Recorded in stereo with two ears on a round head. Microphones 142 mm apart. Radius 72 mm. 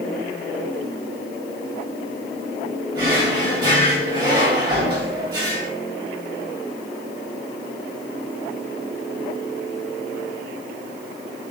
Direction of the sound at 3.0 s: 25° right (ahead or behind).